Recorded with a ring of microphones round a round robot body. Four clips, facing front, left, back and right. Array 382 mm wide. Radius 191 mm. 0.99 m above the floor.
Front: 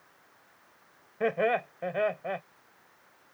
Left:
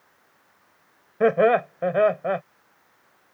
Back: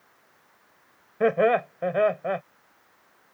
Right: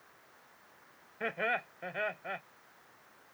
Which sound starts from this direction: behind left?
Laughter, at 1.2 s.